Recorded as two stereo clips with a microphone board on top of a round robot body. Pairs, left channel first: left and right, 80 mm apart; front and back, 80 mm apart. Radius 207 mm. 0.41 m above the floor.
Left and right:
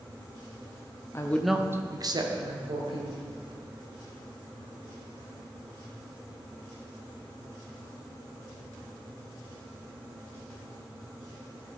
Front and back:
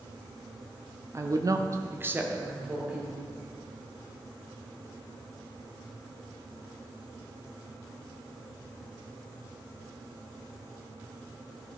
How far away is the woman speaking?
About 1.1 m.